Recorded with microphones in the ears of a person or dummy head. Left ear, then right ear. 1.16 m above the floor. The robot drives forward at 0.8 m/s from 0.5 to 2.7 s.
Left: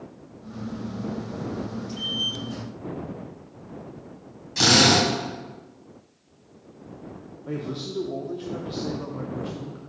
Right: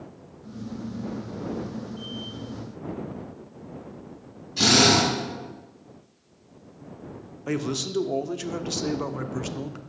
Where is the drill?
65° left (ahead or behind), 3 m.